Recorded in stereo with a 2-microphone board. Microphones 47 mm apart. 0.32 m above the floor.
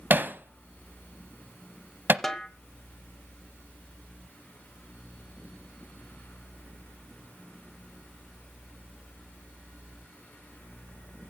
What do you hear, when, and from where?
0.1 s hammering: 45° right (ahead or behind), 0.7 m
2.2 s a snare drum: 5° left (ahead or behind), 1.1 m